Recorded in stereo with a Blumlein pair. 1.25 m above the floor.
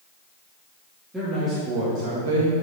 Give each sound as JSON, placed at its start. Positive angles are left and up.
{"t": 1.1, "sound": "a man speaking", "azimuth_deg": -10, "distance_m": 2.5}